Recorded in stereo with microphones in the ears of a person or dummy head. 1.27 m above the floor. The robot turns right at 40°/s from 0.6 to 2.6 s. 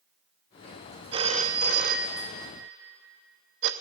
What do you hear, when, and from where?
1.1 s a phone ringing: 20° right (ahead or behind), 1.0 m; by 3.7 s 60° right (ahead or behind), 1.0 m